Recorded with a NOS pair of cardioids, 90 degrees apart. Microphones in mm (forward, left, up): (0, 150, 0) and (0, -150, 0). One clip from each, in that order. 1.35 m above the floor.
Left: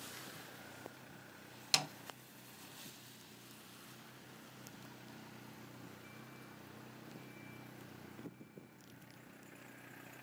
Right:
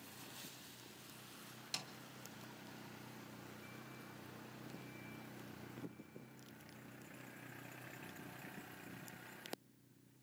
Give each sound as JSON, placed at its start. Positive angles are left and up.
{"t": 1.7, "sound": "a snare drum", "azimuth_deg": 55, "distance_m": 0.5}